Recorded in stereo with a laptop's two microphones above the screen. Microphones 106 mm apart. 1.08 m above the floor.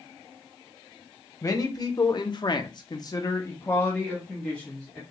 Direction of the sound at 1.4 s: 35° left (ahead or behind).